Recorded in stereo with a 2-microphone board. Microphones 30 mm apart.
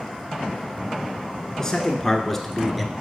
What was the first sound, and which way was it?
A man speaking, 20° left (ahead or behind).